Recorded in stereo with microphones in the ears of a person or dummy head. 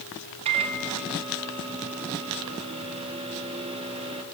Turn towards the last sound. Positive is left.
turn(degrees=-30)  # may be behind; listen again after turning